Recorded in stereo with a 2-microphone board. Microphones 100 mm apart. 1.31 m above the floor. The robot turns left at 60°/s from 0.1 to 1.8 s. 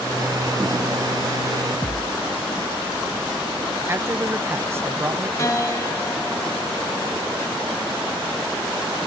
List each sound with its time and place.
1.8 s a thud: 30° right (ahead or behind), 0.7 m
3.9 s a man speaking: 25° right (ahead or behind), 0.6 m
5.4 s a piano: 35° left (ahead or behind), 1.8 m